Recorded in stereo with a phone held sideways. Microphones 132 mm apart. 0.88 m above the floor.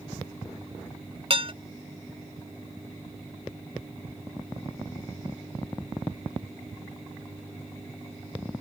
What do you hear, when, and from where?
1.3 s dishes clattering: 45° right (ahead or behind)